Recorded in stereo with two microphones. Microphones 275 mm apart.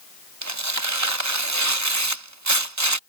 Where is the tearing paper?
80° right.